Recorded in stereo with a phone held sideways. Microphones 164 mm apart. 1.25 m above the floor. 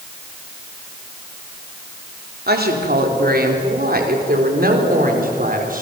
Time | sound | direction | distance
2.5 | a woman speaking | 75° right (ahead or behind) | 4 m